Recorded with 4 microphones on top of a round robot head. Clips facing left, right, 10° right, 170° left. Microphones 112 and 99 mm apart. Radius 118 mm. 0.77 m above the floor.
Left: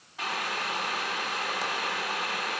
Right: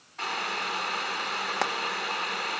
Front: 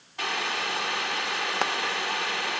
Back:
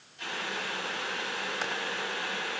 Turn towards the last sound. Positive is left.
turn(degrees=-55)